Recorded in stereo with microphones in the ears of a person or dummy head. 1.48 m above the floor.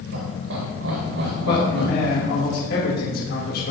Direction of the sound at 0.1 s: 85° right.